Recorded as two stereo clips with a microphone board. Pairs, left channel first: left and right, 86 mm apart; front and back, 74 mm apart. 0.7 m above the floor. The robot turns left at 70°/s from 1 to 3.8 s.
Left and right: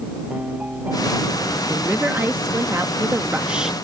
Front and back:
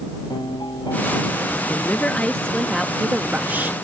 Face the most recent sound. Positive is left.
turn(degrees=-170)